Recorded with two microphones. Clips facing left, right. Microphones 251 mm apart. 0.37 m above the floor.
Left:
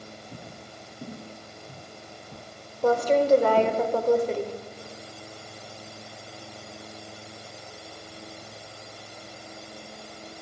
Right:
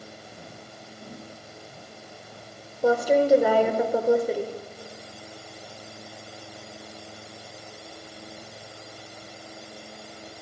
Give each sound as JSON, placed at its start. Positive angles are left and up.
{"t": 0.3, "sound": "footsteps", "side_deg": 70, "distance_m": 4.5}
{"t": 2.8, "sound": "a woman speaking", "side_deg": -10, "distance_m": 1.3}